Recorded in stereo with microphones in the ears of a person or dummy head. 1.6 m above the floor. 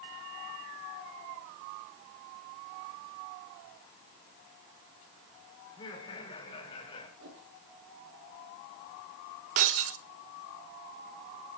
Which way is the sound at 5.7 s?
30° left (ahead or behind).